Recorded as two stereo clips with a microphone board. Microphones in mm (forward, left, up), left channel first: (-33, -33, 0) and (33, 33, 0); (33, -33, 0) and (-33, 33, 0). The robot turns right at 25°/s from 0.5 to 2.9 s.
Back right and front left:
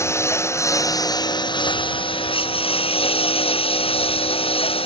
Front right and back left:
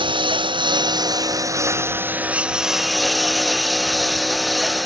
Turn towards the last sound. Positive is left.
turn(degrees=-135)